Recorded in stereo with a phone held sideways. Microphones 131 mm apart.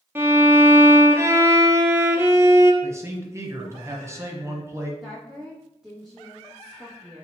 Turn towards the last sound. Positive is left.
turn(degrees=0)  # may be behind; listen again after turning